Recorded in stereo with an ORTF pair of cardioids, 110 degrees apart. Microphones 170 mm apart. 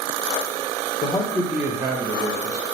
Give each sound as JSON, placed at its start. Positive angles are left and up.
{"t": 1.0, "sound": "a man speaking", "azimuth_deg": 25, "distance_m": 0.6}